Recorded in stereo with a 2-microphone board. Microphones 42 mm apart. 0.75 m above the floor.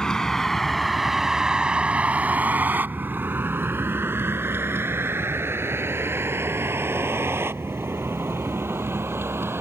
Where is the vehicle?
15° left (ahead or behind); by 9.6 s 85° right.